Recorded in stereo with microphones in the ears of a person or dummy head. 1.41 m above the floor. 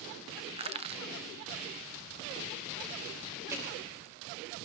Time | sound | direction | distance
0.6 | crushing | 30° right (ahead or behind) | 0.9 m
3.5 | hammering | 10° right (ahead or behind) | 3 m